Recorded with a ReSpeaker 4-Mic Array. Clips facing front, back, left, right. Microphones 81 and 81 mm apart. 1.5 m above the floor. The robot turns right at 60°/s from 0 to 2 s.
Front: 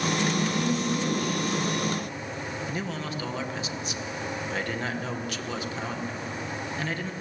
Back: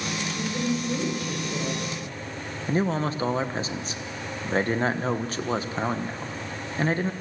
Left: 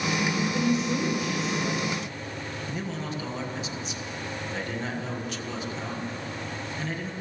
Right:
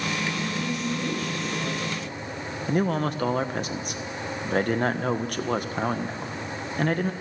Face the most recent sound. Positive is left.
turn(degrees=-125)